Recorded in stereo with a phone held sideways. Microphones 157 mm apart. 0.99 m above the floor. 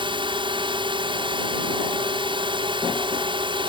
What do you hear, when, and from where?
0.0 s a drone: 30° right (ahead or behind)